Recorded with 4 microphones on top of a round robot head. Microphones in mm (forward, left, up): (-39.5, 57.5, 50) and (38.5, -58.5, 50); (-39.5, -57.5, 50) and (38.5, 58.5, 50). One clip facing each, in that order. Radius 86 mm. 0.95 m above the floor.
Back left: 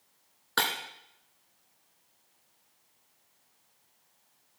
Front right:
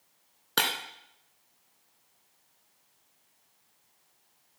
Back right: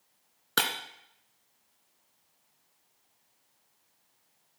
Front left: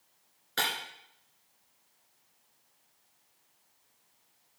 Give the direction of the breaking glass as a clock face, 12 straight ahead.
4 o'clock.